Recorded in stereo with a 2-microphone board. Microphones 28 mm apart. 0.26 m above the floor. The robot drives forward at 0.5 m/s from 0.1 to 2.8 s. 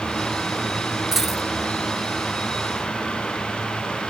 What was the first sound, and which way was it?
A dropped coin, 10° right (ahead or behind).